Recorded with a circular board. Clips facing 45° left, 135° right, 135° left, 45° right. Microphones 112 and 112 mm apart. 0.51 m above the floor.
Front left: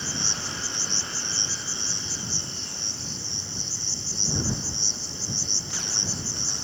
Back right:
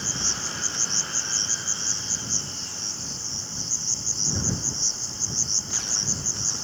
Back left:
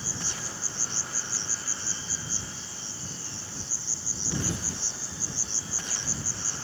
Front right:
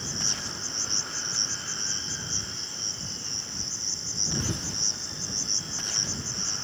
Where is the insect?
20° left.